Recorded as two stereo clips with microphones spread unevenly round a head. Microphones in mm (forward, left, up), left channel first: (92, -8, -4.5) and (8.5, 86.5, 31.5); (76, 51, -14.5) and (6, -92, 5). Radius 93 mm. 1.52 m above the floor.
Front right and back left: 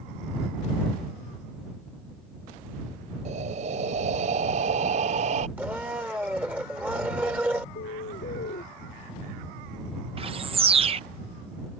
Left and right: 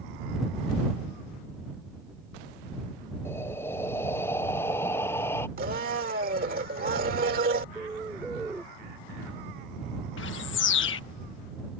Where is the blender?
150° right.